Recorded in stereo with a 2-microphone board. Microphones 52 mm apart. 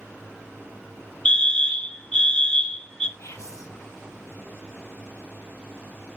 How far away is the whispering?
About 2.5 m.